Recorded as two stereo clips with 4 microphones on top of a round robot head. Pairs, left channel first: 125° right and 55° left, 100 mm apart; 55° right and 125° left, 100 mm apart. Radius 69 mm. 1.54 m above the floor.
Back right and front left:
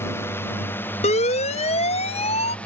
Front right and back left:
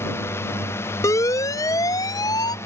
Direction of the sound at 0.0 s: 90° right.